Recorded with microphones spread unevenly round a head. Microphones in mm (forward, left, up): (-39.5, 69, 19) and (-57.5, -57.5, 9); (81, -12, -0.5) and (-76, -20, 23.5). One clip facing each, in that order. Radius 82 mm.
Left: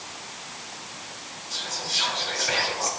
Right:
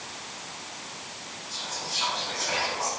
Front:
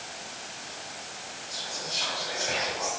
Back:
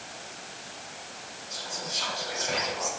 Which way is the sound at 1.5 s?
90° left.